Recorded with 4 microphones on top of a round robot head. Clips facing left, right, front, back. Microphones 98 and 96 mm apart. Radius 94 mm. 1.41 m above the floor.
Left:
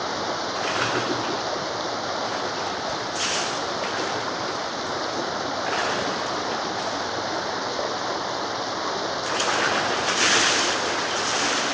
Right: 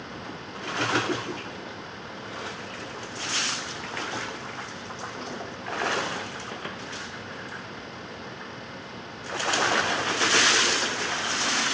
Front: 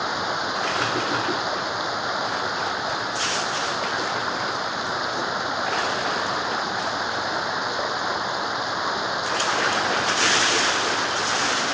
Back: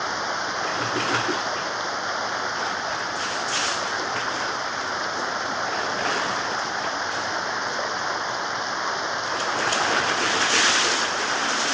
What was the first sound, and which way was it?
Running water, 85° left.